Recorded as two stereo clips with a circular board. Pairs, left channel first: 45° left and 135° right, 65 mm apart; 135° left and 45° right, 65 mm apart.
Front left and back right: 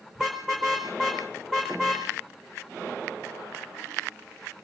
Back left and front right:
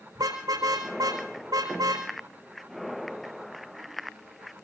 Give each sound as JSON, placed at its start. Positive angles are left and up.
{"t": 0.1, "sound": "a car horn", "azimuth_deg": -55, "distance_m": 4.0}